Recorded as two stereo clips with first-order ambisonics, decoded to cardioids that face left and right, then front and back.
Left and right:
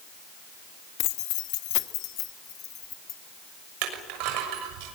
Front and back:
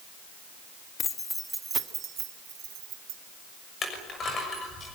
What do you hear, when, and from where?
1.0 s keys jangling: 65° left, 1.2 m; by 3.2 s 145° left, 2.5 m
3.8 s crushing: 70° right, 6.5 m